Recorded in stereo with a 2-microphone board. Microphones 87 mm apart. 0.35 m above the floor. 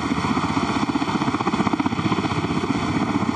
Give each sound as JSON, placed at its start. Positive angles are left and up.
{"t": 0.0, "sound": "a helicopter", "side_deg": 0}